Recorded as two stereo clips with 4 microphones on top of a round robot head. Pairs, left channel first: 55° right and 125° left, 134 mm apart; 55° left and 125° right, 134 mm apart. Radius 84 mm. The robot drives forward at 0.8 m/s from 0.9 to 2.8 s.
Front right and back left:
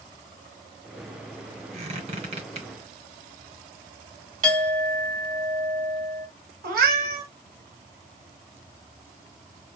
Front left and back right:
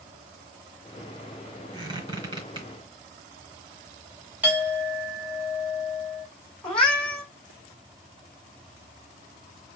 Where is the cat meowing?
135° left, 1.5 m.